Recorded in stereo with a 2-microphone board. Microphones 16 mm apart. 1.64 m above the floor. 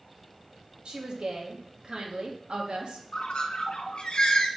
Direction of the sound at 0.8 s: 75° right (ahead or behind).